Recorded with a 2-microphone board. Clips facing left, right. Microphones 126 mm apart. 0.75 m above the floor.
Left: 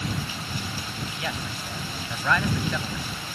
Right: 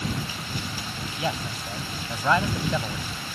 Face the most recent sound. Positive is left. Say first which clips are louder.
# right 6 dB
turn(degrees=-25)  # may be behind; listen again after turning